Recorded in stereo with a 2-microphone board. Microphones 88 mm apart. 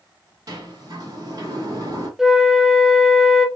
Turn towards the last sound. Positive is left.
turn(degrees=-5)  # may be behind; listen again after turning